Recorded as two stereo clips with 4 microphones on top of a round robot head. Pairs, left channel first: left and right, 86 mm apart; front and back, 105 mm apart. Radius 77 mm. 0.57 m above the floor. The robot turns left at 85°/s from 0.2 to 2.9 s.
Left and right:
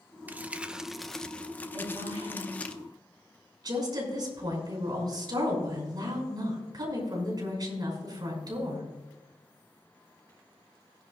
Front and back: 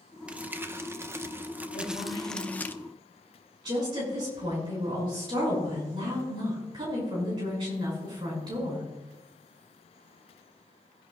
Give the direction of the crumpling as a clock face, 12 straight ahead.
4 o'clock.